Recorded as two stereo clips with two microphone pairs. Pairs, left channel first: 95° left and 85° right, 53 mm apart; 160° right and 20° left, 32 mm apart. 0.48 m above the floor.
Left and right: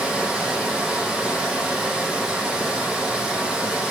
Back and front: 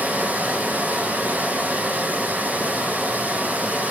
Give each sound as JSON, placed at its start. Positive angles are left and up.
{"t": 0.0, "sound": "running water", "azimuth_deg": -5, "distance_m": 7.0}